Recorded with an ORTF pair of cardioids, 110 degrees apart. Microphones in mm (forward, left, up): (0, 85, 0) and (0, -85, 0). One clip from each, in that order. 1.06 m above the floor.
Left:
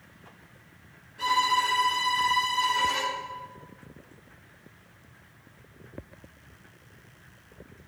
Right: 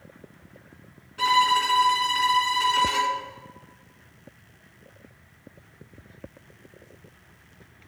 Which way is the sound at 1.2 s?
60° right.